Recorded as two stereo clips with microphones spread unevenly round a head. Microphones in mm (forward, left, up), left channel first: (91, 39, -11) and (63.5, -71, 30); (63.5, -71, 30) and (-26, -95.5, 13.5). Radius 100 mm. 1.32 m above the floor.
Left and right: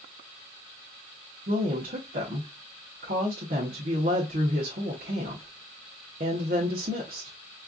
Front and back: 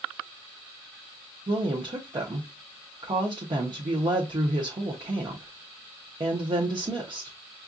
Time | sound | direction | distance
1.5 | a woman speaking | 135° right | 1.0 m